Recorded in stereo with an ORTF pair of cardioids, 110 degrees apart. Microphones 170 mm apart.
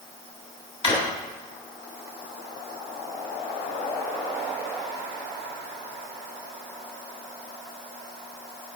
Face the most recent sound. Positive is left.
turn(degrees=35)